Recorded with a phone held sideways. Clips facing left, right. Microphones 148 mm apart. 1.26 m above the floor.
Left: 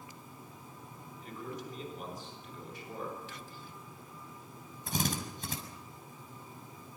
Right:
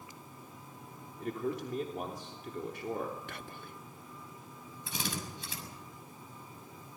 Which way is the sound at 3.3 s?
60° right (ahead or behind).